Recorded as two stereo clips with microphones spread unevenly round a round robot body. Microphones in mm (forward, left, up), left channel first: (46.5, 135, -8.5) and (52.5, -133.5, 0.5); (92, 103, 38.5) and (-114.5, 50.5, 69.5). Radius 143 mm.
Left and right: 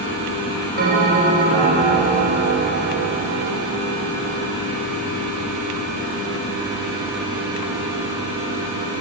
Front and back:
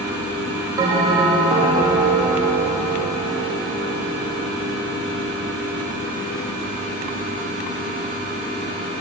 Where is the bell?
90° right, 0.8 m.